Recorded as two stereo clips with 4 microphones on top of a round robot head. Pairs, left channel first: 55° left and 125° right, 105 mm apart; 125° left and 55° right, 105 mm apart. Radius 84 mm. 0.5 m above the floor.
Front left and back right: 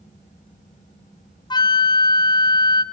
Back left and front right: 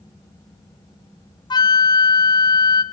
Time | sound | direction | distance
1.5 | a flute | 90° left | 0.9 m